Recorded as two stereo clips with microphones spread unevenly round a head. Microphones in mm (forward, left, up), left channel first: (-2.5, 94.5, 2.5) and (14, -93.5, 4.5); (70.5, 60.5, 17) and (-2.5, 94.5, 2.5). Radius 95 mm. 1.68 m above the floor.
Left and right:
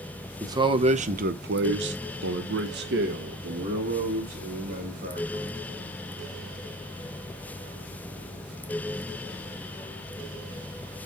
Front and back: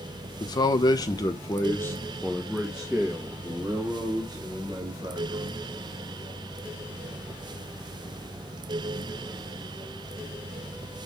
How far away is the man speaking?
About 1.1 m.